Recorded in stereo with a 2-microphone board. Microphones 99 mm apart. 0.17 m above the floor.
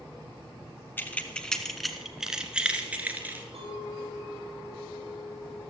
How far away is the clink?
About 4 m.